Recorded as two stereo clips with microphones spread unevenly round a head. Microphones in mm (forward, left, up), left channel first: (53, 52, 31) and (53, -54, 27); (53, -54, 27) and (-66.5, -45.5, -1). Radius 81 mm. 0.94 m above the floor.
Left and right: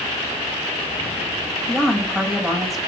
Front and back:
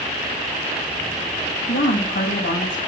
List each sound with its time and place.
1.7 s a woman speaking: straight ahead, 6.5 m